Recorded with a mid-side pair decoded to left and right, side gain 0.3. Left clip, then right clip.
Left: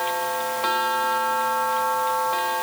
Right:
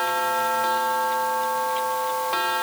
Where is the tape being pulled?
I don't hear tape being pulled.